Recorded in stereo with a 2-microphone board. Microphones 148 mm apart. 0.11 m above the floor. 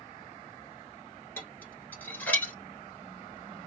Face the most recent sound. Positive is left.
turn(degrees=10)  # may be behind; listen again after turning